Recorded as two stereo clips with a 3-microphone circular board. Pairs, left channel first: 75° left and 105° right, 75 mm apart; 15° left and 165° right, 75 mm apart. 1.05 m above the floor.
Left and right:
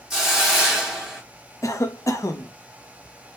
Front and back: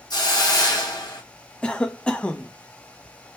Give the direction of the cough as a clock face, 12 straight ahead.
9 o'clock.